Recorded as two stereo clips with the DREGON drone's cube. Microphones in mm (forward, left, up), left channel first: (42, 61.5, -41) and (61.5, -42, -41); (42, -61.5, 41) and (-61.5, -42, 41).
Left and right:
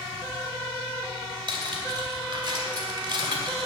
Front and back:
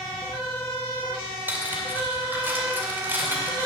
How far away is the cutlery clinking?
About 2 m.